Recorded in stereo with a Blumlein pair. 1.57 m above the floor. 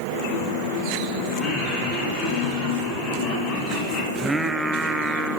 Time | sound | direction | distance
1.4 | laughter | 25° left | 9 m
4.2 | singing | 5° right | 0.8 m